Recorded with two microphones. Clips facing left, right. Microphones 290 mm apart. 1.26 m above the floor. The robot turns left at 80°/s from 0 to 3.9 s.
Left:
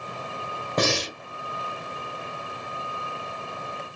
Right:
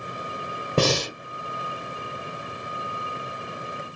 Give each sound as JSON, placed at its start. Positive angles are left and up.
{"t": 0.8, "sound": "breathing", "azimuth_deg": -40, "distance_m": 0.9}